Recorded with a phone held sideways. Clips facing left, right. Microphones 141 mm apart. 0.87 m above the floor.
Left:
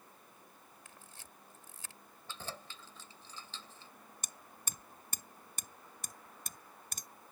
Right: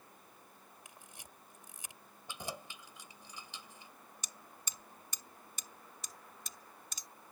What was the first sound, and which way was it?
A camera shutter, 15° right (ahead or behind).